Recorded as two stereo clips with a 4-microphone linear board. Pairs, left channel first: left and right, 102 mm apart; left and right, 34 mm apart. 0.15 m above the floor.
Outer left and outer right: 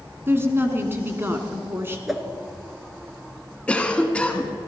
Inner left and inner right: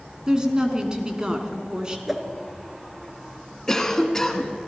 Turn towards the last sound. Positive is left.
turn(degrees=10)  # may be behind; listen again after turning